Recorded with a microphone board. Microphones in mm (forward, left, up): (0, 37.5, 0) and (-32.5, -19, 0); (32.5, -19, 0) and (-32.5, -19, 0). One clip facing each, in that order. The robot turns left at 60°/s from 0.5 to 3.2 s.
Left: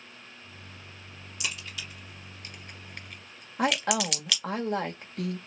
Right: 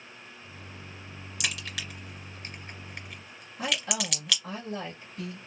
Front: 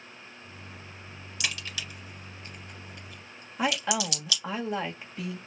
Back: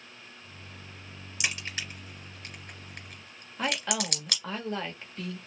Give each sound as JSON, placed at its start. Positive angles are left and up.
{"t": 1.4, "sound": "a crack", "azimuth_deg": -105, "distance_m": 2.0}
{"t": 3.6, "sound": "a woman speaking", "azimuth_deg": 80, "distance_m": 1.1}